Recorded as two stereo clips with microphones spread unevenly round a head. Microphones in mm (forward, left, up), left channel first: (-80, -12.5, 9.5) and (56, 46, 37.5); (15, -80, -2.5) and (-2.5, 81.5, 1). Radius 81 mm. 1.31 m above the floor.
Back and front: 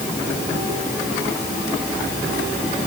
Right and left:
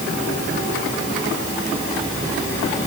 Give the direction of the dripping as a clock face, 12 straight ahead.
I don't hear dripping.